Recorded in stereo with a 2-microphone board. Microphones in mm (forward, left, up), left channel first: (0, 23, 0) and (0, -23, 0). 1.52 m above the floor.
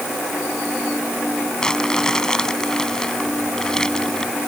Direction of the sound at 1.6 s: 15° left (ahead or behind).